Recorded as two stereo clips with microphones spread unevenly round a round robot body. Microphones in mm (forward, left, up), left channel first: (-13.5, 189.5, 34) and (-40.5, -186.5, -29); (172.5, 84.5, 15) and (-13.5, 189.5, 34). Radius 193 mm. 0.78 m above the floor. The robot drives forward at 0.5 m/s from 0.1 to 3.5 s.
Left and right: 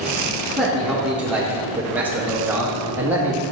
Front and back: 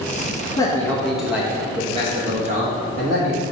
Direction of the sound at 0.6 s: 30° right.